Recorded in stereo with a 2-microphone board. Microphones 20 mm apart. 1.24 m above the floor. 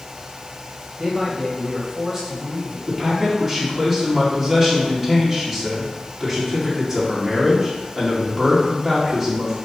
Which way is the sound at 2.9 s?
Centre (ahead or behind).